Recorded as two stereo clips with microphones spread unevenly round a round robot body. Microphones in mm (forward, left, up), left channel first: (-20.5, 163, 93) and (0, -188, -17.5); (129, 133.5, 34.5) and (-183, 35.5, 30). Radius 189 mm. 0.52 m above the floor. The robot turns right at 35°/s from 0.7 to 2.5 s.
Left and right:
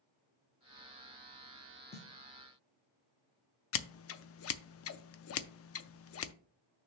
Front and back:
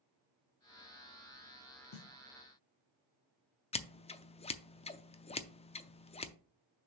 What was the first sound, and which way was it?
A snare drum, 5° left.